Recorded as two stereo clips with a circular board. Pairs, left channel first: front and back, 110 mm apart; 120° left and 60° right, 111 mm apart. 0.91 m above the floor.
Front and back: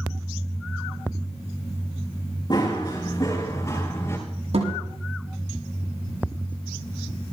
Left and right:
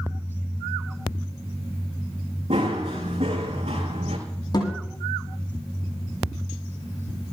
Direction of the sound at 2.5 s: 45° right.